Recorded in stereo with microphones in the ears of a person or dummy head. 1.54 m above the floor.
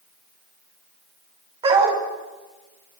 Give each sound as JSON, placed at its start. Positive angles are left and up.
{"t": 1.6, "sound": "a dog barking", "side_deg": -25, "distance_m": 3.5}